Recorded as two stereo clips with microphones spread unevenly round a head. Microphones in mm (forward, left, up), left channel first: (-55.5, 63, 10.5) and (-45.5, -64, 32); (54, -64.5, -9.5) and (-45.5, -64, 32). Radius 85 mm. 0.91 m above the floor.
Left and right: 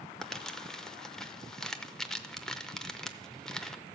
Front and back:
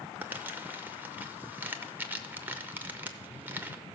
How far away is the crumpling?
About 0.7 m.